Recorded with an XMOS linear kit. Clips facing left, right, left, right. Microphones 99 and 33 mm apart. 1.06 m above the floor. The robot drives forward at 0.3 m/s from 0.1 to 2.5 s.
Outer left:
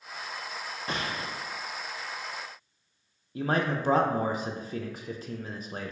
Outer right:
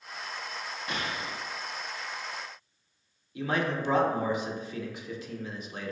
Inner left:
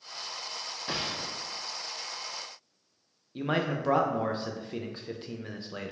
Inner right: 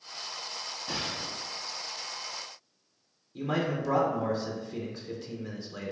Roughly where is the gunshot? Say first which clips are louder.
Outer left 2 dB, inner left 1 dB; left.